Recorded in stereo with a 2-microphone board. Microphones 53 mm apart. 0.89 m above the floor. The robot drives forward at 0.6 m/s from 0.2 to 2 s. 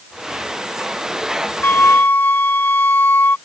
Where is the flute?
50° left (ahead or behind); by 3.4 s 40° left (ahead or behind).